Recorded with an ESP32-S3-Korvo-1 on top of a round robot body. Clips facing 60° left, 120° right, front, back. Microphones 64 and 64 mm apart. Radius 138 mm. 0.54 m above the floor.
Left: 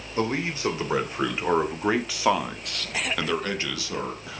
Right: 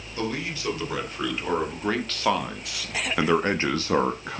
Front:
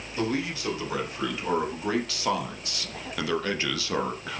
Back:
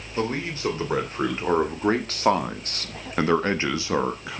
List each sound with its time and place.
0.2 s a man speaking: 125° left, 3.5 m; by 4.4 s 100° right, 1.6 m